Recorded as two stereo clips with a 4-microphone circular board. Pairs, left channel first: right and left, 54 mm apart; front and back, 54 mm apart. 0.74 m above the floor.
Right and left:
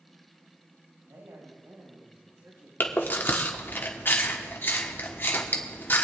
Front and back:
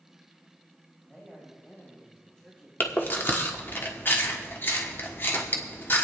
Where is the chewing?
45° right, 1.2 m.